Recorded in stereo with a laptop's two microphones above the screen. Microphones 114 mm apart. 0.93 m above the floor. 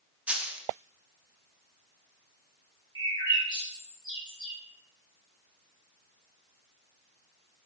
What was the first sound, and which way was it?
A dropped coin, 10° right (ahead or behind).